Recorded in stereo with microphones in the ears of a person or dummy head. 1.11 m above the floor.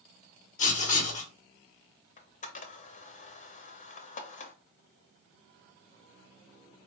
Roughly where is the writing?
Left.